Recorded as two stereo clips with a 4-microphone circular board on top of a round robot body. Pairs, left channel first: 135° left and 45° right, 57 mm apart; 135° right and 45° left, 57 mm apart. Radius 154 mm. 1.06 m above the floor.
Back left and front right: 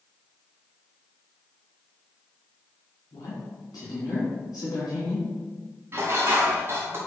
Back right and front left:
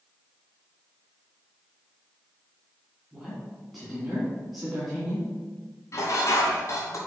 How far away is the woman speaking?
About 3 m.